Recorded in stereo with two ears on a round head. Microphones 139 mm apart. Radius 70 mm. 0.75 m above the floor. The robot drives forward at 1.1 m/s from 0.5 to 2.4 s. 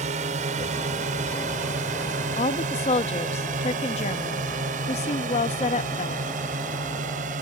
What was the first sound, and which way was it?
A drone, 50° right (ahead or behind).